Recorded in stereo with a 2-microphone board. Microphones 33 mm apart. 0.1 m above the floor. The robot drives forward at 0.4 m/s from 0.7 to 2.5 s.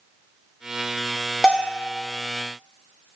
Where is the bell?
10° left (ahead or behind), 0.6 m.